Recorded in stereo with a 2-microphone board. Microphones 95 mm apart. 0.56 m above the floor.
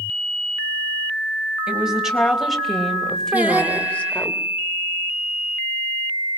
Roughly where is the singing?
Centre.